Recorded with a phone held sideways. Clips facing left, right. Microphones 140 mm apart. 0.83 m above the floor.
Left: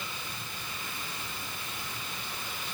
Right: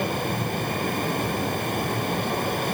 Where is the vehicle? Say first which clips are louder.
Right 17 dB; 60° right (ahead or behind).